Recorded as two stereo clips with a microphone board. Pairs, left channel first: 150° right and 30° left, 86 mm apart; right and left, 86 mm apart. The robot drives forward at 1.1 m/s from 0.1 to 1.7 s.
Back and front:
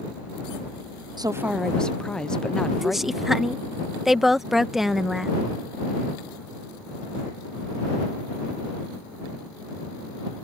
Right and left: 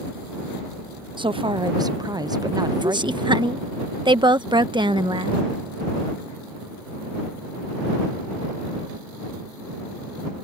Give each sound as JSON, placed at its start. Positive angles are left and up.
{"t": 1.2, "sound": "a woman speaking", "azimuth_deg": 65}
{"t": 2.8, "sound": "a woman speaking", "azimuth_deg": 115}